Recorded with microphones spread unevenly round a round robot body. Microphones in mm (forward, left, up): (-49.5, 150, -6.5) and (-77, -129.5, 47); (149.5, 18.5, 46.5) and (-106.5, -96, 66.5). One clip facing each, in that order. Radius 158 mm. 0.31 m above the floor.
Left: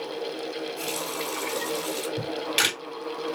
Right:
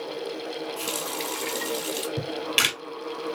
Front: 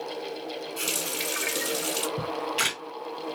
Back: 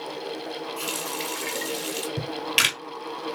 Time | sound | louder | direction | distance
0.8 | a running tap | even, back 1 dB | 50° right | 1.4 m
2.2 | a camera shutter | left 1 dB, even | 160° right | 2 m